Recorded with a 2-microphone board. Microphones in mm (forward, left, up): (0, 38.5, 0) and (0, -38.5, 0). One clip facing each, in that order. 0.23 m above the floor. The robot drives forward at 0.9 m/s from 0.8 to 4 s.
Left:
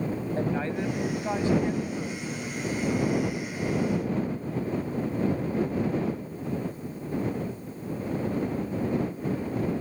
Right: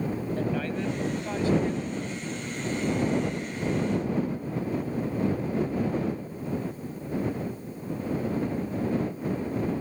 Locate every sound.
0.4 s a woman speaking: 30° left (ahead or behind); by 2.6 s 15° left (ahead or behind)